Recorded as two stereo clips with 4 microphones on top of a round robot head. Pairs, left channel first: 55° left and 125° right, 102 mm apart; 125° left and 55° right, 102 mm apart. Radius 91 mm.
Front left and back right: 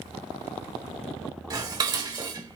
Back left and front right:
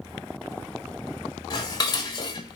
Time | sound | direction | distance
1.5 | dishes clattering | straight behind | 1.4 m